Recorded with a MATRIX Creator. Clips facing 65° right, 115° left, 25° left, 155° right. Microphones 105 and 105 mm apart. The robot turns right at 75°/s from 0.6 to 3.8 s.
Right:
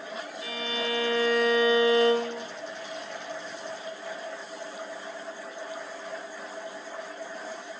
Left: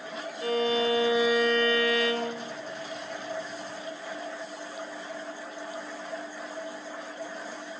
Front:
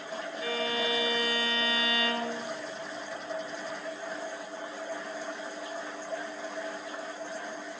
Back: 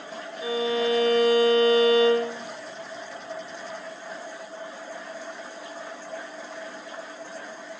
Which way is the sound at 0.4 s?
140° left.